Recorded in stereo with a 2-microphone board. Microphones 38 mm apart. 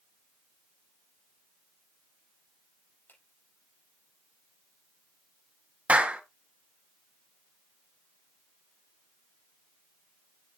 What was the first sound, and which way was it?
A finger snap, 60° left (ahead or behind).